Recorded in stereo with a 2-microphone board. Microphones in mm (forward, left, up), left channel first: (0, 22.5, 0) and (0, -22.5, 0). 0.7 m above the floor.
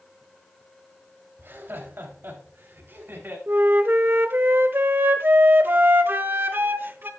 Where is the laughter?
60° right (ahead or behind), 3 m; by 3.4 s 55° right (ahead or behind), 4 m.